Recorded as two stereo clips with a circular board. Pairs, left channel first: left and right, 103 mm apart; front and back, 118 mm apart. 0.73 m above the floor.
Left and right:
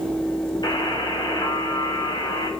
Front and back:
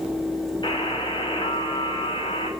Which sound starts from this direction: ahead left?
A buzzer, at 0.6 s.